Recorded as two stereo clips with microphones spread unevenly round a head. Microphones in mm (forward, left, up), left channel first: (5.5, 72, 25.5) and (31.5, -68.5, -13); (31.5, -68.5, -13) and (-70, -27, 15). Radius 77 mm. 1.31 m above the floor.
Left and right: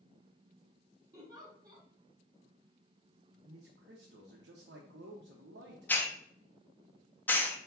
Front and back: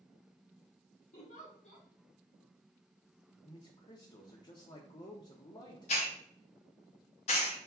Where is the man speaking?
70° right, 0.7 m.